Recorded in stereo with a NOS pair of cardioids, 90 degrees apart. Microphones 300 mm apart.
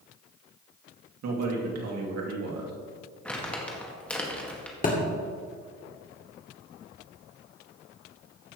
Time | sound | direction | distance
1.2 | a man speaking | 60° right | 2.5 m
3.2 | crumpling | 5° left | 1.9 m
4.8 | a thud | 30° left | 2 m